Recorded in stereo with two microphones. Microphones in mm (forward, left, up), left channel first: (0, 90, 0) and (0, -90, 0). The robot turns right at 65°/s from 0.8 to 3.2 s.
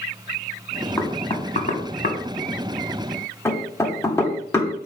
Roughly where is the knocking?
Centre.